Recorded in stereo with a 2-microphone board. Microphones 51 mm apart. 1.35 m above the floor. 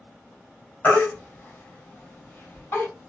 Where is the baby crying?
45° left (ahead or behind), 2 m.